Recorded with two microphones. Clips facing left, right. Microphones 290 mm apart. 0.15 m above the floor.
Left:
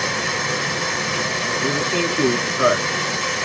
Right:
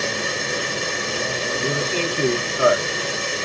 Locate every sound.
0.0 s running water: 80° left, 1.5 m
1.6 s a man speaking: 20° left (ahead or behind), 1.8 m